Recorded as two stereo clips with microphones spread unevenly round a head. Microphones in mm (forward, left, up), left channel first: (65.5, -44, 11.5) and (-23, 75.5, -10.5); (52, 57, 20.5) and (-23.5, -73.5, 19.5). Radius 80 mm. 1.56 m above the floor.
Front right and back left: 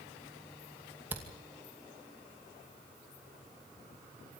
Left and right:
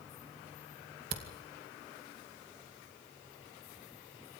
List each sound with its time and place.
1.1 s a camera shutter: 155° right, 2.5 m